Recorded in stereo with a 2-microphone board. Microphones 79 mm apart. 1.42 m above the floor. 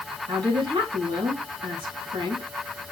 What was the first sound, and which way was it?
A woman speaking, 75° right (ahead or behind).